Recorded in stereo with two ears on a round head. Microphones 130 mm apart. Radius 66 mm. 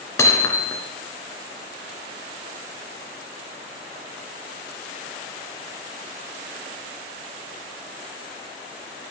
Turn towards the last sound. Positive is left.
turn(degrees=20)  # may be behind; listen again after turning